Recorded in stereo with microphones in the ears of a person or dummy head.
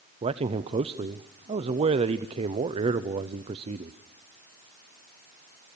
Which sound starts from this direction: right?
A man speaking, at 0.2 s.